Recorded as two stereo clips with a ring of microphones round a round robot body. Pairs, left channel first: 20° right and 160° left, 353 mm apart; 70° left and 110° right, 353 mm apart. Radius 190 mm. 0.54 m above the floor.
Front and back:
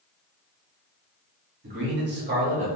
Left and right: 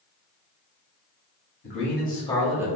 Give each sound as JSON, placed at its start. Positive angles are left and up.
{"t": 1.6, "sound": "a man speaking", "azimuth_deg": 110, "distance_m": 1.7}